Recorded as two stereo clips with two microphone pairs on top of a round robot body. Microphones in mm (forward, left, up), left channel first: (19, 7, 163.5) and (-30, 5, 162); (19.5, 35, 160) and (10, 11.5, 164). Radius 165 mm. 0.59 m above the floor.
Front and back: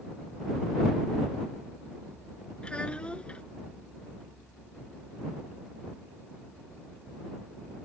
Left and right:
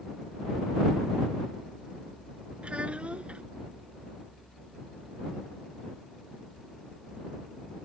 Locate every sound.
2.6 s a child speaking: 65° right